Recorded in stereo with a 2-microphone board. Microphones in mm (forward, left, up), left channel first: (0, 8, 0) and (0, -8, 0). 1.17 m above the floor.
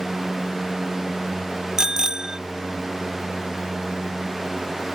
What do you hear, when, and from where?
1.8 s a bicycle bell: 35° right (ahead or behind)